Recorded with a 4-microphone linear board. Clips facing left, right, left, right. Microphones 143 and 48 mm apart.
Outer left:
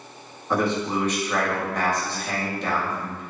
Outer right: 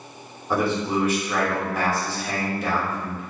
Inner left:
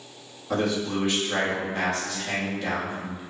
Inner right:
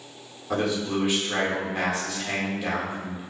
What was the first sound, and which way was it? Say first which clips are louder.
A man speaking: outer right 1 dB, even; 5° right (ahead or behind).